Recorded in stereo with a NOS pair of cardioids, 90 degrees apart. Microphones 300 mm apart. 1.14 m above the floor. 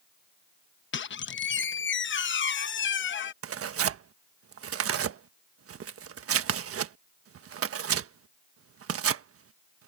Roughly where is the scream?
No scream in this recording.